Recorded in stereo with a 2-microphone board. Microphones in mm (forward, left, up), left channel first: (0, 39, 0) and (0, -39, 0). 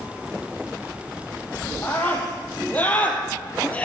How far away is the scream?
About 4 m.